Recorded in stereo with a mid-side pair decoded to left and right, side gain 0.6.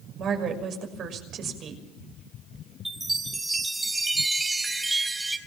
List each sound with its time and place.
0.2 s a woman speaking: 50° right, 6 m
2.9 s a chime: 10° right, 5 m